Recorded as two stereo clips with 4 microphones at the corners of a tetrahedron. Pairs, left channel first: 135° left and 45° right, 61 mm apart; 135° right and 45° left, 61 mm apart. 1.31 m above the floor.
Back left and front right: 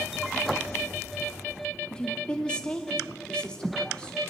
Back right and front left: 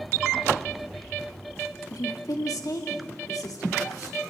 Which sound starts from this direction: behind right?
A woman speaking, at 1.9 s.